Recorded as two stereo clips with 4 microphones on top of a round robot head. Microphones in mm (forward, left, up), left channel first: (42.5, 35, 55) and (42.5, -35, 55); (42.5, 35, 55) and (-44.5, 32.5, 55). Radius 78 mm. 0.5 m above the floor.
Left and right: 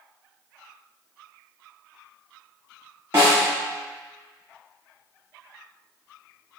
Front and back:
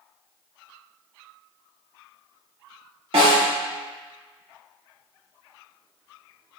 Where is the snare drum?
155° right, 1.8 m.